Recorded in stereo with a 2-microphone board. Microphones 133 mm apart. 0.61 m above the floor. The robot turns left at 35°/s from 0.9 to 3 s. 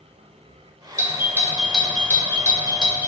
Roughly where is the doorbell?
Right.